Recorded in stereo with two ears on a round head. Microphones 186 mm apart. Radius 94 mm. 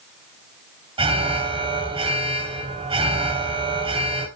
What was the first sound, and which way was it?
An alarm, 25° right (ahead or behind).